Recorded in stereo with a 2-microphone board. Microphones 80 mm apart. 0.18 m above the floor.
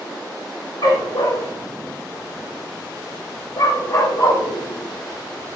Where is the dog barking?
60° left (ahead or behind), 2 m; by 5.6 s 35° left (ahead or behind), 5.5 m.